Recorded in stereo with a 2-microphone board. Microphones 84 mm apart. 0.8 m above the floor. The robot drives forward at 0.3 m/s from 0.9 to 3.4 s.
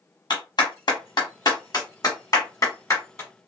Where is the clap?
55° left (ahead or behind), 1.1 m; by 3.3 s 35° left (ahead or behind), 1.6 m.